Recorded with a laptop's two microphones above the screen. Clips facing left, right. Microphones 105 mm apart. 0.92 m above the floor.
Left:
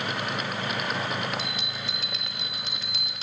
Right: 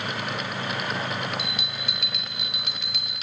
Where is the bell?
30° left (ahead or behind), 0.6 m.